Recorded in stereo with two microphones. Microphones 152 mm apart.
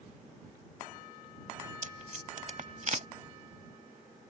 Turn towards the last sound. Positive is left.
turn(degrees=-55)  # may be behind; listen again after turning